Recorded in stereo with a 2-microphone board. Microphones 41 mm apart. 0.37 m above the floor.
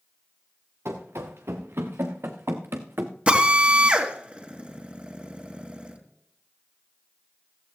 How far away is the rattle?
No rattle in this recording.